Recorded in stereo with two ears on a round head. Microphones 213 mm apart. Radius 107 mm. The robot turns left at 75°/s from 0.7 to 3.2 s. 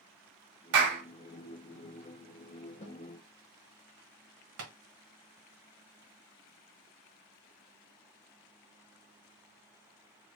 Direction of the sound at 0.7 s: 55° right (ahead or behind).